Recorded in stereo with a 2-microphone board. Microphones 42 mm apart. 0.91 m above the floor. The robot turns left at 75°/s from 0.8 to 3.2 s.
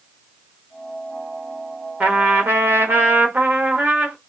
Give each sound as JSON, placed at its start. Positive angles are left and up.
{"t": 2.0, "sound": "a trumpet", "azimuth_deg": -35, "distance_m": 0.9}